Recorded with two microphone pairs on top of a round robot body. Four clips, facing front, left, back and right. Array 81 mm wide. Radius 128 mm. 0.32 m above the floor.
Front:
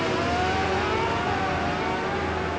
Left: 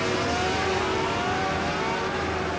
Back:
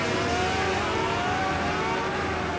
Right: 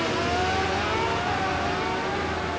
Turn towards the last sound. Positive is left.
No sound to turn to.